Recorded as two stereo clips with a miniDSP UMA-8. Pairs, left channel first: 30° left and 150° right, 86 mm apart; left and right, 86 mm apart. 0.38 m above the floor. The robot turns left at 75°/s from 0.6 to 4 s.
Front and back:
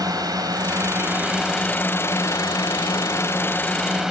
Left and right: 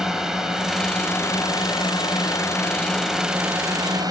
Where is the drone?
170° right; by 4.1 s 65° right.